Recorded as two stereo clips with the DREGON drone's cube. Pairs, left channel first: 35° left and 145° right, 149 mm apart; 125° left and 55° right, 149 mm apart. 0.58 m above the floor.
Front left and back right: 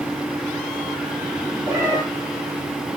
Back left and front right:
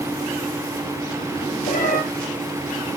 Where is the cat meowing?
145° left, 8 m.